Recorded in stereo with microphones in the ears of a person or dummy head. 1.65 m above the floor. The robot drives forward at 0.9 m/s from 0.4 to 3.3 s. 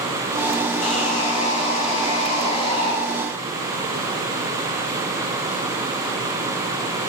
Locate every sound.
0.8 s sawing: 40° left (ahead or behind), 9.5 m; by 2.9 s 35° left (ahead or behind), 11 m